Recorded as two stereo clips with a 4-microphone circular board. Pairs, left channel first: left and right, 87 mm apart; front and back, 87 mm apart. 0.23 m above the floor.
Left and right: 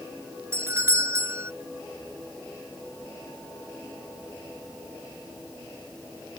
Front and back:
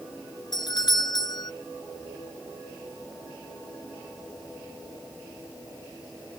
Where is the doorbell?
30° right.